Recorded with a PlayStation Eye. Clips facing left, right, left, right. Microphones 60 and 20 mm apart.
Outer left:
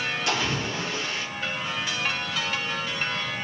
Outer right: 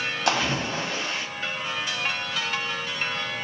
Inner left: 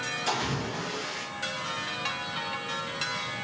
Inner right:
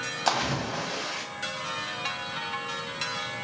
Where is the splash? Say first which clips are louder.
Outer right 5 dB, inner right 5 dB; 70° right (ahead or behind), 0.9 m.